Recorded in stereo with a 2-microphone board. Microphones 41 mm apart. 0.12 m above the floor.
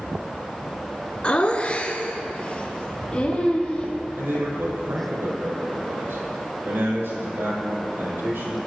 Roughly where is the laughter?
Left.